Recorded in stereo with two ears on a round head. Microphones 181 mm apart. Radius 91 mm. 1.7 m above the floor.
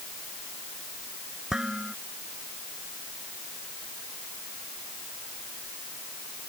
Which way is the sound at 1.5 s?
Centre (ahead or behind).